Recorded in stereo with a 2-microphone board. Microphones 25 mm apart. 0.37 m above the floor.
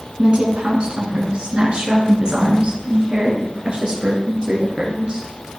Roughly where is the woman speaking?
Right.